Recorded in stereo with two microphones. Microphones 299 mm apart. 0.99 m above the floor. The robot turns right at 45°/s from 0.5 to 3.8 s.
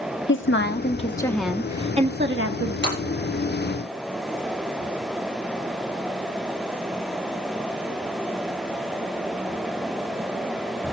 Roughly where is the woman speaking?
Behind left.